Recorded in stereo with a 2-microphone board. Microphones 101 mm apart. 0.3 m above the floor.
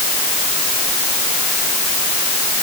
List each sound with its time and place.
Only background noise.